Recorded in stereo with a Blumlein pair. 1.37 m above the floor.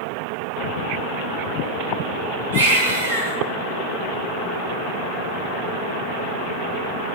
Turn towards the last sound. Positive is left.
turn(degrees=-70)